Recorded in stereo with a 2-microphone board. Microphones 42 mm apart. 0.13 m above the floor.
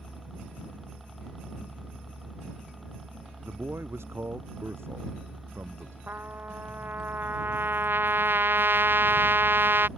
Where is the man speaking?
80° right.